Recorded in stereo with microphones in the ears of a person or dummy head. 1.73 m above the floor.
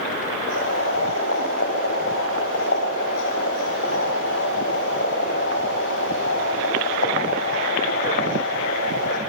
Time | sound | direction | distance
0.5 | boiling | 65° left (ahead or behind) | 7 m